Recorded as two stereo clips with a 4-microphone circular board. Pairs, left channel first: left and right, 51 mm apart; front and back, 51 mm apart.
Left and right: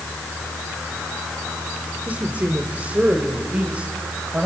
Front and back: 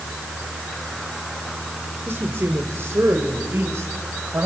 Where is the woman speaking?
145° right, 2.0 m; by 4.5 s 150° right, 4 m.